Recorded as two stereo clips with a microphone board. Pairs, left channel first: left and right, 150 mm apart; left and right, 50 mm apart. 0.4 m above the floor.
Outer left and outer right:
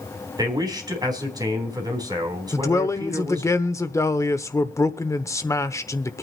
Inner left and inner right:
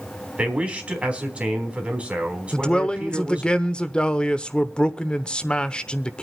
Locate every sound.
0.4 s a man speaking: 25° right (ahead or behind), 3.5 m
2.5 s a man speaking: 20° left (ahead or behind), 0.8 m